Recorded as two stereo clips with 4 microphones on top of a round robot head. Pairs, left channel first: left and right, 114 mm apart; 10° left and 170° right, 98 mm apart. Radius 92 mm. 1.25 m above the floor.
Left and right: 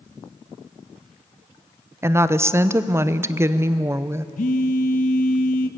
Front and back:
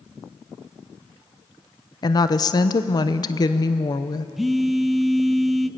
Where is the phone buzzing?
105° left, 0.8 m.